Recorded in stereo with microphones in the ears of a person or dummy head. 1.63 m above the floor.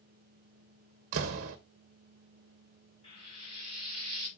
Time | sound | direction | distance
1.1 | a door slam | 40° right (ahead or behind) | 0.8 m
3.0 | frying | 30° left (ahead or behind) | 6 m